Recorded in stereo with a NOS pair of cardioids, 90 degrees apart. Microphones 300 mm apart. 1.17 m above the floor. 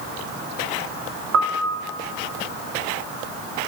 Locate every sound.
1.3 s a piano: 65° right, 0.7 m